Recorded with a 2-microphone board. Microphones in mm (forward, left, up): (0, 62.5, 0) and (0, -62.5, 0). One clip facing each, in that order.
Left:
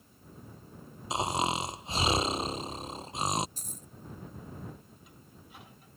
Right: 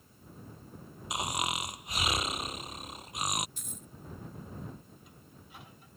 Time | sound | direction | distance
1.1 | snoring | 30° left (ahead or behind) | ?
3.6 | a dropped coin | 35° left (ahead or behind) | ?